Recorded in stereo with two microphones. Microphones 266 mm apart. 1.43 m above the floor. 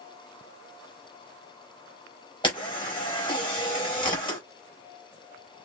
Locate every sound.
2.4 s a camera shutter: 20° left (ahead or behind), 4 m